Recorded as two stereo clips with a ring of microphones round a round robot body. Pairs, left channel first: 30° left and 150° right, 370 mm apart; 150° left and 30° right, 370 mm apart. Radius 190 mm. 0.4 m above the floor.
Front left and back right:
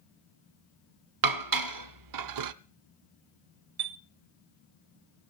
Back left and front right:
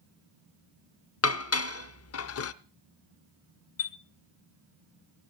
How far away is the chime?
About 0.7 m.